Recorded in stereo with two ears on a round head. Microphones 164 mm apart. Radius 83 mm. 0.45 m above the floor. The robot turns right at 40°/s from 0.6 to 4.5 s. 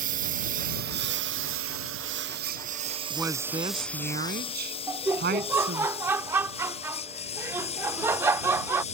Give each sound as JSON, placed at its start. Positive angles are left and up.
{"t": 0.0, "sound": "a lawn mower", "side_deg": -50}
{"t": 3.1, "sound": "a woman speaking", "azimuth_deg": -175}
{"t": 4.9, "sound": "laughter", "side_deg": -15}